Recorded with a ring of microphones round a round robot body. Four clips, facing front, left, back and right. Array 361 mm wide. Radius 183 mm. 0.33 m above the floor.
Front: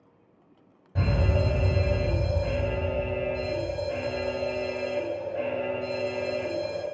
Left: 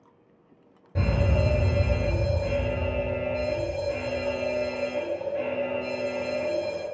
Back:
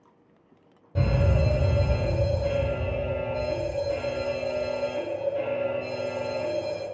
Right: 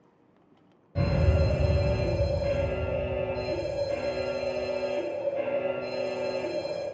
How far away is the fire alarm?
About 3 m.